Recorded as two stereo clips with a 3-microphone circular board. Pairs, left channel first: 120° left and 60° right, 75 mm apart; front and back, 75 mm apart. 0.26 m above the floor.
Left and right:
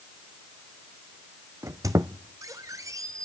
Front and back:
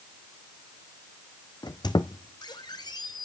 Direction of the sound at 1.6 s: 15° right.